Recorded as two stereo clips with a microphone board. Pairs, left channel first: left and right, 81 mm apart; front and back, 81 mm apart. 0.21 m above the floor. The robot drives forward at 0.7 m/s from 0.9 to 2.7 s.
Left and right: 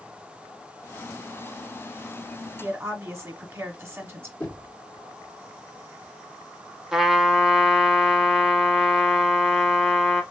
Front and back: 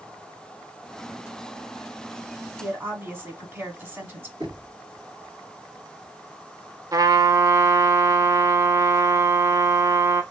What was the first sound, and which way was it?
A woman speaking, 130° right.